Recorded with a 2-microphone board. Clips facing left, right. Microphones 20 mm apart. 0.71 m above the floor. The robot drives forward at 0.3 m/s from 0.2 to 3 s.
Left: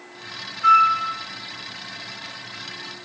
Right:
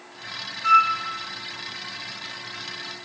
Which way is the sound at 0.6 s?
60° left (ahead or behind).